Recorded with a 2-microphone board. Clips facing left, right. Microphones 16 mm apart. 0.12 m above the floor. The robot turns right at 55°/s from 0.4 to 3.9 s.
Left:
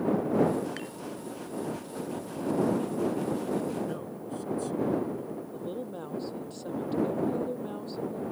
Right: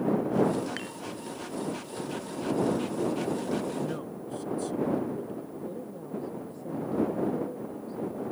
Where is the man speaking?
10° right (ahead or behind).